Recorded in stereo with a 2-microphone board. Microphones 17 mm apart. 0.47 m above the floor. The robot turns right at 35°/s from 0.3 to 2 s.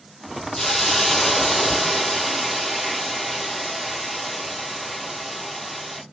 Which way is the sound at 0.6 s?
15° left (ahead or behind).